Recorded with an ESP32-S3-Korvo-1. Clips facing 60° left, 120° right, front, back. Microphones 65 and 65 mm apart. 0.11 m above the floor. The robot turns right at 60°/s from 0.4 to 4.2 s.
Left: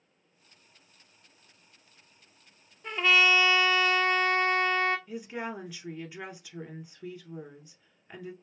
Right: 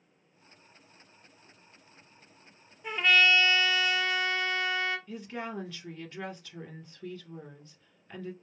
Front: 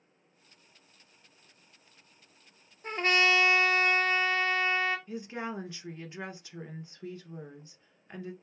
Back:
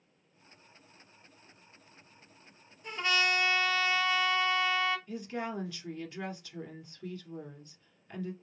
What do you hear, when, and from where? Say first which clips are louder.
2.8 s a trumpet: even, front 4 dB; 40° right, 0.7 m; by 5.0 s 40° left, 0.7 m
5.1 s a woman speaking: left 2 dB, even; 5° right, 1.1 m